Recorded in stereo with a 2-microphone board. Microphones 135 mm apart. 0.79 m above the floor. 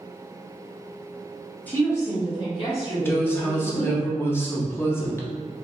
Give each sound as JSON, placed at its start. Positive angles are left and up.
{"t": 1.7, "sound": "a woman speaking", "side_deg": 15, "distance_m": 1.3}
{"t": 3.0, "sound": "a woman speaking", "side_deg": 20, "distance_m": 0.7}